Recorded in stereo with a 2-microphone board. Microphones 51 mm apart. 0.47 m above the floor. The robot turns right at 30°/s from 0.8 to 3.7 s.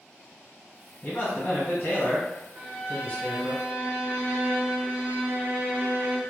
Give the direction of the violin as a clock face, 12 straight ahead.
4 o'clock.